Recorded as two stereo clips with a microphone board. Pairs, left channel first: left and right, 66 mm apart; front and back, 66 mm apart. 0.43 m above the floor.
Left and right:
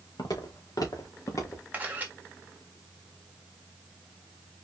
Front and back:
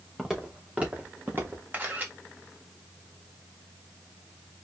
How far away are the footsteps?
About 2.5 m.